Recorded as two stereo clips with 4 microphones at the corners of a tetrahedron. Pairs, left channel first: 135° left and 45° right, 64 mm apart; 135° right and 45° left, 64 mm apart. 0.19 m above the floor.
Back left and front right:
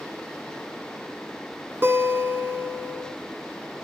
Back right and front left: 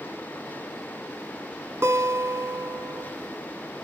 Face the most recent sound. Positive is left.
turn(degrees=5)